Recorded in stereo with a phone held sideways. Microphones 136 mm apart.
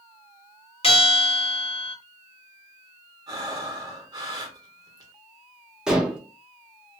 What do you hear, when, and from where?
0.8 s a bell: 45° left (ahead or behind), 1.0 m
3.3 s breathing: 30° right (ahead or behind), 1.0 m
5.9 s dishes clattering: 5° right (ahead or behind), 0.8 m